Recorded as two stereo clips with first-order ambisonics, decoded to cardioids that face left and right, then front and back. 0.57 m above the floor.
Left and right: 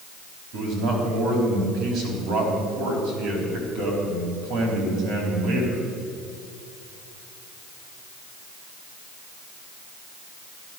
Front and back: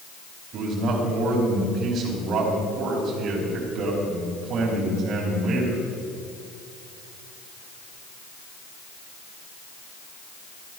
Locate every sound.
0.5 s a man speaking: 125° right, 4.5 m